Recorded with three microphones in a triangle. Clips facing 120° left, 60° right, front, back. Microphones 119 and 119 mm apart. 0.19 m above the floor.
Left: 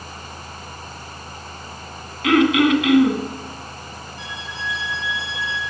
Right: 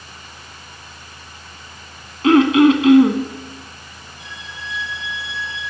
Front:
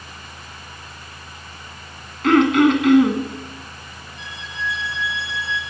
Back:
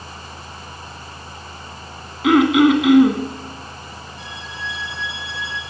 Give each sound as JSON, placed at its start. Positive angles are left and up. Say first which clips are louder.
{"t": 2.2, "sound": "throat clearing", "louder": "right 4 dB, back 1 dB", "azimuth_deg": -100, "distance_m": 1.9}
{"t": 4.2, "sound": "a violin", "louder": "left 3 dB, front 4 dB", "azimuth_deg": 135, "distance_m": 6.5}